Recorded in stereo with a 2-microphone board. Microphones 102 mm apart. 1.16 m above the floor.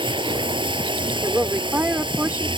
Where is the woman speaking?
20° right (ahead or behind).